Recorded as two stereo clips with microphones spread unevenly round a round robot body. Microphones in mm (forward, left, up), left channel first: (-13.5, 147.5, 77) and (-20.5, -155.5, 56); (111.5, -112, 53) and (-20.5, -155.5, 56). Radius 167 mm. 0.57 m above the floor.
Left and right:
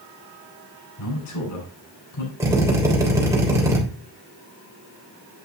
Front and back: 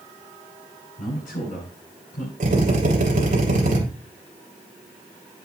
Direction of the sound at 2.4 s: 170° right.